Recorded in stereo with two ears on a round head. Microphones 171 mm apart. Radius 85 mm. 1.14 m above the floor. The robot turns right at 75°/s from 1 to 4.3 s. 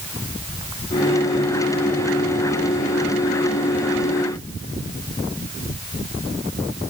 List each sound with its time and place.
Only background noise.